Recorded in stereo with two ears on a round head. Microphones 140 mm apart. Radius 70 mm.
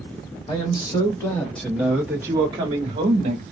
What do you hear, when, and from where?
0.5 s a man speaking: 30° left (ahead or behind), 1.5 m; by 3.4 s 45° right (ahead or behind), 1.3 m